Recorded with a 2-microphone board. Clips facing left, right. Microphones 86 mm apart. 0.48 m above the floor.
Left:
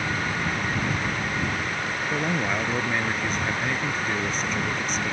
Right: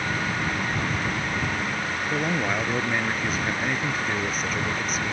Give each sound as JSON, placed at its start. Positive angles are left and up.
{"t": 2.1, "sound": "a man speaking", "side_deg": -5}